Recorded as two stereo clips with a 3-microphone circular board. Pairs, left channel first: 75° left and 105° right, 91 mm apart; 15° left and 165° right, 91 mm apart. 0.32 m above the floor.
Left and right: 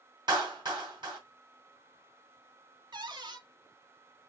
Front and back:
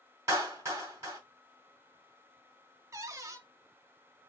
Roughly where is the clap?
Behind right.